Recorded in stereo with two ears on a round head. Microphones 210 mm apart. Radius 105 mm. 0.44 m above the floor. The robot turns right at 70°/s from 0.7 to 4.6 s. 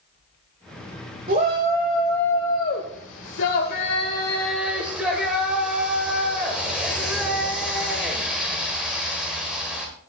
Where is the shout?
45° right, 1.3 m; by 9.9 s 175° right, 1.3 m.